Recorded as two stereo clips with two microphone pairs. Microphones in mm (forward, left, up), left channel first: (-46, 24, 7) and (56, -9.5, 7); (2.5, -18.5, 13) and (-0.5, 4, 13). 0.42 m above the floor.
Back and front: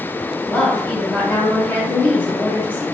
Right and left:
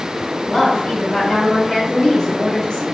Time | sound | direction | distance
0.5 | a woman speaking | 135° right | 1.9 m